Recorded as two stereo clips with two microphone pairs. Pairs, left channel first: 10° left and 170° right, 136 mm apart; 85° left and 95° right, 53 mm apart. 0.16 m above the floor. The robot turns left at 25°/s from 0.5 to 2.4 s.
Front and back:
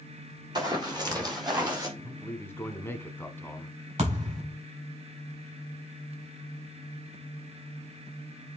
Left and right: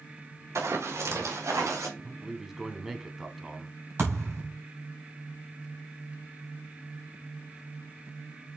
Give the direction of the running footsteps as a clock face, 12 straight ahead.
4 o'clock.